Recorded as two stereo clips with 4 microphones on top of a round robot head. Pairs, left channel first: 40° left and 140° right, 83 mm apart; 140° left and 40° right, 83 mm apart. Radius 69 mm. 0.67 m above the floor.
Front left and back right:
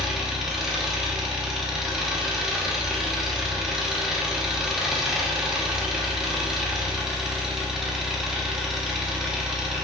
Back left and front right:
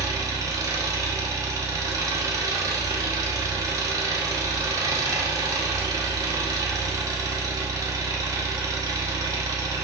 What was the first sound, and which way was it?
An engine running, 55° right.